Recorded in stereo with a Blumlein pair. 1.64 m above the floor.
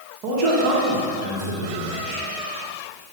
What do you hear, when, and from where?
0.2 s a man speaking: 40° right, 2 m